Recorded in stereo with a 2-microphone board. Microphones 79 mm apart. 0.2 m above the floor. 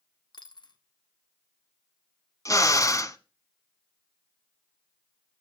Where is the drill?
40° left (ahead or behind), 0.8 m.